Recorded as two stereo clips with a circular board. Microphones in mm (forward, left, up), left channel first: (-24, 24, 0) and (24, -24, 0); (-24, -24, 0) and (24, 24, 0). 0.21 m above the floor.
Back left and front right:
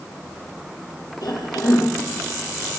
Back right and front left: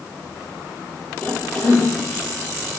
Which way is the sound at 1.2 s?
155° left.